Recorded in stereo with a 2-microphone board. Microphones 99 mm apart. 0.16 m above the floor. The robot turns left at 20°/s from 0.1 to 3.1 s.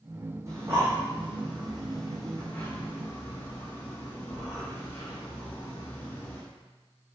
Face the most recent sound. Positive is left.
turn(degrees=25)  # may be behind; listen again after turning